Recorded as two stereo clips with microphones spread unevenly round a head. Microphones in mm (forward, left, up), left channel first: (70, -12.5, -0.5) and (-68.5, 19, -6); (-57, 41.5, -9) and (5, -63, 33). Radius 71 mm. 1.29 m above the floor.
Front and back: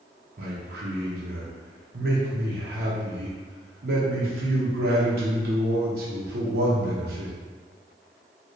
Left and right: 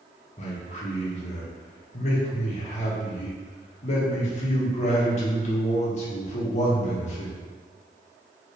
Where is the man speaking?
145° left, 1.0 m.